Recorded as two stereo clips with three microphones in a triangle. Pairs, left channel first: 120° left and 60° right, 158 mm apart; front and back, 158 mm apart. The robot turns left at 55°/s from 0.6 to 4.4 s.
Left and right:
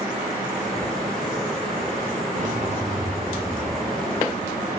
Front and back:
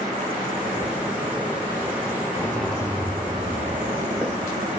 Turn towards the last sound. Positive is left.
turn(degrees=180)